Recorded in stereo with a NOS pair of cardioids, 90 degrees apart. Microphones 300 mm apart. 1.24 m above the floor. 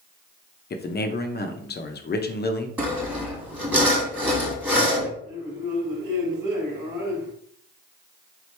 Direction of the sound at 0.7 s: 35° left.